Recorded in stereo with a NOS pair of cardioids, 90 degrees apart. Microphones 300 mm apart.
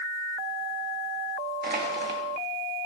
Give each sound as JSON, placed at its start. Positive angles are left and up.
{"t": 1.6, "sound": "crushing", "azimuth_deg": -30, "distance_m": 2.0}